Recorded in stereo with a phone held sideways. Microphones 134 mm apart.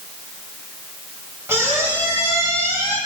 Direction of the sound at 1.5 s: 20° right (ahead or behind).